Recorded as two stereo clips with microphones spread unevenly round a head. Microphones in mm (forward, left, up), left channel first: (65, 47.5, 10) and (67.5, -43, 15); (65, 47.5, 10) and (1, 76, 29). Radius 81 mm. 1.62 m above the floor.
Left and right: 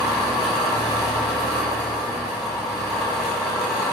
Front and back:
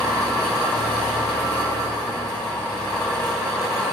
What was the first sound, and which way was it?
An engine running, straight ahead.